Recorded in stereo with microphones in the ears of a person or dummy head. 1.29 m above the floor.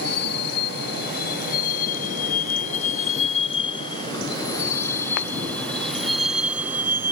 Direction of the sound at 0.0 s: 60° left (ahead or behind).